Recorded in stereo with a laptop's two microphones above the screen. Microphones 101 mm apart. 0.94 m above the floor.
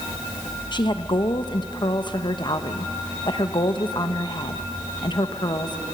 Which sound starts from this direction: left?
A woman speaking, at 0.7 s.